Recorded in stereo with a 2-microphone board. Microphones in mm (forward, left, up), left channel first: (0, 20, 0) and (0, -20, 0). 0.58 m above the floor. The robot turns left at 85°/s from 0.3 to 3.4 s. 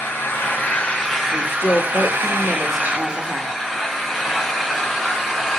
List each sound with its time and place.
0.0 s an engine running: 75° left, 3.5 m; by 5.6 s 175° left, 3.5 m
1.3 s a woman speaking: 130° left, 1.3 m; by 3.6 s 50° right, 1.3 m